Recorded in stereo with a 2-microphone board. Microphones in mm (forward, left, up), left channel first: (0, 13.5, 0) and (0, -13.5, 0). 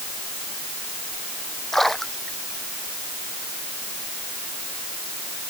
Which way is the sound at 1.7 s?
5° left (ahead or behind).